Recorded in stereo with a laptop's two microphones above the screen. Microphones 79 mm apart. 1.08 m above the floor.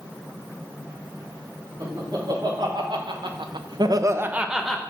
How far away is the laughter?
About 1.9 m.